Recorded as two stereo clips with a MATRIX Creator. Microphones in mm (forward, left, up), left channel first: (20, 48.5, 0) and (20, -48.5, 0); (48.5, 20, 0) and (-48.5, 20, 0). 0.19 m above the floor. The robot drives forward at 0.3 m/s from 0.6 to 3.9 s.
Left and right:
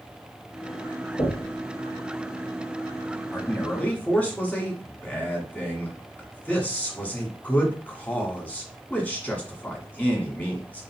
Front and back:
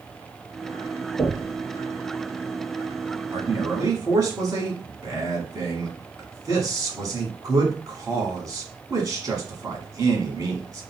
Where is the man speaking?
150° left, 1.5 m; by 10.8 s 155° left, 1.6 m.